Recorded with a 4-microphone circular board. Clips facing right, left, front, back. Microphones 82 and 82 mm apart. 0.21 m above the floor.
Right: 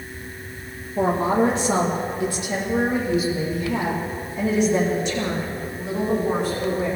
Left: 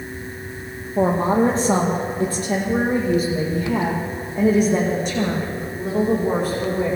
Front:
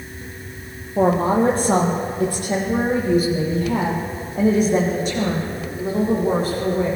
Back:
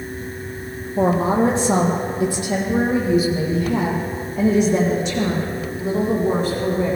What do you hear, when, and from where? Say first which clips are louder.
1.0 s a woman speaking: left 2 dB, front 1 dB; 35° left, 5 m; by 6.9 s 50° left, 13 m